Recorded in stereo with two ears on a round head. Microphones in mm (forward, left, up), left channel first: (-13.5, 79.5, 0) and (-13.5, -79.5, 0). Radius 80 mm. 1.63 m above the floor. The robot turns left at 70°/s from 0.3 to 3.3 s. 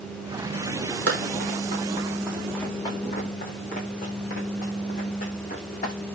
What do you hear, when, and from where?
1.1 s running footsteps: 75° right (ahead or behind), 5.5 m; by 5.9 s 45° left (ahead or behind), 9.5 m